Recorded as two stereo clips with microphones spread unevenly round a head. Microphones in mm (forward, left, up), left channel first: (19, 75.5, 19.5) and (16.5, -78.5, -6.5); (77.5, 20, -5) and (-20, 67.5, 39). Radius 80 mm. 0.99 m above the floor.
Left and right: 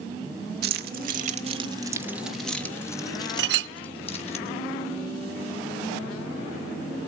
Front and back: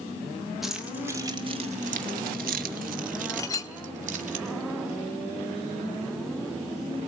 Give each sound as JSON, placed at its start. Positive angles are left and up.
{"t": 0.6, "sound": "keys jangling", "azimuth_deg": -115, "distance_m": 1.1}
{"t": 3.4, "sound": "a clink", "azimuth_deg": -110, "distance_m": 0.5}